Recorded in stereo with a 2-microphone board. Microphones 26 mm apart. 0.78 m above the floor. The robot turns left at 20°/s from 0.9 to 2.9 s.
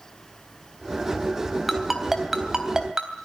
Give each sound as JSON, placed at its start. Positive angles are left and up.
{"t": 1.7, "sound": "a ringtone", "side_deg": 0, "distance_m": 3.5}